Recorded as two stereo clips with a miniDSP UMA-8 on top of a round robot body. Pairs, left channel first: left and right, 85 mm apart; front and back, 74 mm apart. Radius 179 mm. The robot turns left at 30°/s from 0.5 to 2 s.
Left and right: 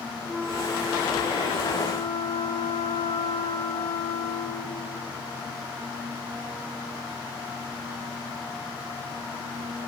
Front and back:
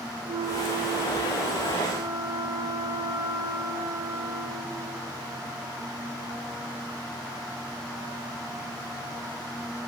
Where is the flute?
Straight behind, 0.5 m; by 5.1 s 135° left, 0.5 m.